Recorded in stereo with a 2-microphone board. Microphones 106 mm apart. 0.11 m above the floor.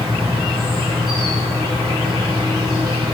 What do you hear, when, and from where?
0.0 s an insect: 40° right (ahead or behind), 5 m